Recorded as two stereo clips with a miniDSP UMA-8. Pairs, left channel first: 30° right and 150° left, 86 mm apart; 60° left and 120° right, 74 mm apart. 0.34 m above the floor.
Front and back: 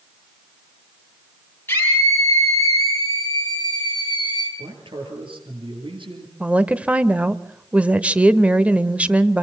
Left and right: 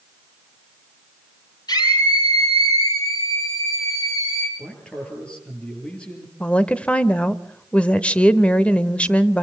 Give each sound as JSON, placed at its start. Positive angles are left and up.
{"t": 1.7, "sound": "a scream", "azimuth_deg": 30, "distance_m": 8.0}
{"t": 4.6, "sound": "a man speaking", "azimuth_deg": 135, "distance_m": 8.5}
{"t": 6.4, "sound": "a woman speaking", "azimuth_deg": 105, "distance_m": 0.9}